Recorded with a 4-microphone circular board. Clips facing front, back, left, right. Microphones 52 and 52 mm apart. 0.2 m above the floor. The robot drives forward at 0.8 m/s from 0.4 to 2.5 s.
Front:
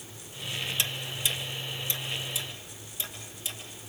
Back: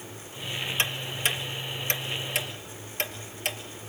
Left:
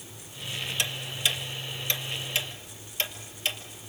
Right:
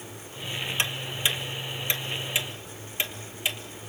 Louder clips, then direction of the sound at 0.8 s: Back 4 dB, right 2 dB; 140° right.